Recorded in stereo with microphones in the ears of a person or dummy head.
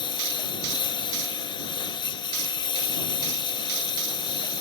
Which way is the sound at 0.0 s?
25° left (ahead or behind).